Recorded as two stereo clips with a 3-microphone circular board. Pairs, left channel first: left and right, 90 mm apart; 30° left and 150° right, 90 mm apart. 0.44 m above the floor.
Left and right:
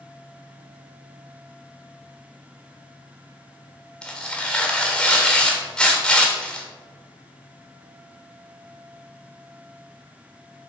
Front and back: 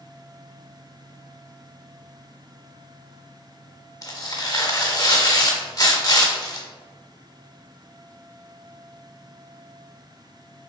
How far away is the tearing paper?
About 1.4 m.